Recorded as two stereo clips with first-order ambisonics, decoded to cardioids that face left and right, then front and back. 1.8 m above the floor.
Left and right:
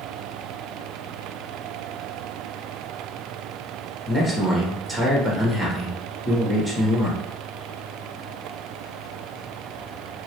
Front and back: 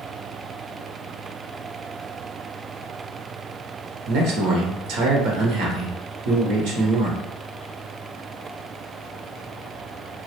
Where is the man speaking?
175° left, 1.0 m.